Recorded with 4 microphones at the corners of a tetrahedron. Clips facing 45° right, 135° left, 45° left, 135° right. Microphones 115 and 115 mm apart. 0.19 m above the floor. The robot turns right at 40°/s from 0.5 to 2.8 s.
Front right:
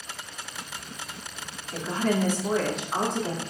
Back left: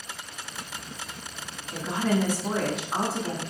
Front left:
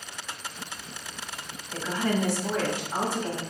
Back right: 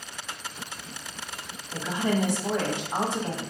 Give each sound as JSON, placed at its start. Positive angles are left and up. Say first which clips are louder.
{"t": 1.7, "sound": "a woman speaking", "louder": "even, back right 1 dB", "azimuth_deg": 170, "distance_m": 1.2}